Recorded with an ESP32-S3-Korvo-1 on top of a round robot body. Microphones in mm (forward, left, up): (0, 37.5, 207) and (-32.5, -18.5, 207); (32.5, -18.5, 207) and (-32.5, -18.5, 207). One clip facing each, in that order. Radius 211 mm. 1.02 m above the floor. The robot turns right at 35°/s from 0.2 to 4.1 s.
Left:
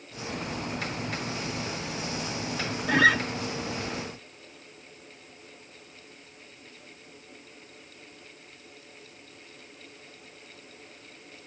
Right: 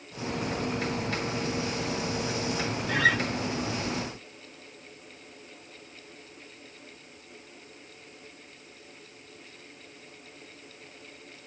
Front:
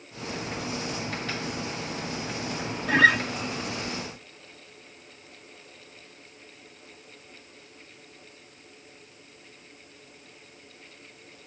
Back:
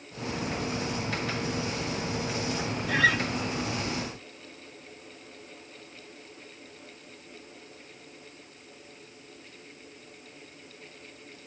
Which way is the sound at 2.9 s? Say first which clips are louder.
Left 4 dB, front 5 dB; 40° left.